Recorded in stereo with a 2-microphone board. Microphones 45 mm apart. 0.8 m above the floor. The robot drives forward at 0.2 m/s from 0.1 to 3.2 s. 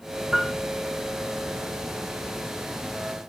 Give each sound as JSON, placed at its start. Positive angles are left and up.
{"t": 0.3, "sound": "a piano", "side_deg": -5, "distance_m": 2.5}